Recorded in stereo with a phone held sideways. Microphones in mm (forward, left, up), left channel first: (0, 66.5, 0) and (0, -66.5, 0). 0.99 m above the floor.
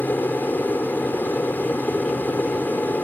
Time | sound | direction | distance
0.0 | an aircraft | 15° left (ahead or behind) | ?